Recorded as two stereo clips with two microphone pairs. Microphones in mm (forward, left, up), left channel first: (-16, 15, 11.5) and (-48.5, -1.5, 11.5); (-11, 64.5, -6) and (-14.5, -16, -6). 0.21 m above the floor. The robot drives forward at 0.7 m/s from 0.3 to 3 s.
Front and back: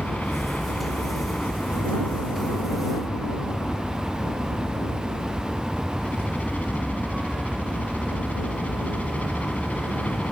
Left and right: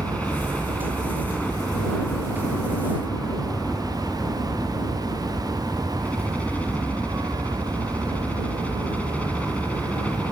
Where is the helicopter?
20° left.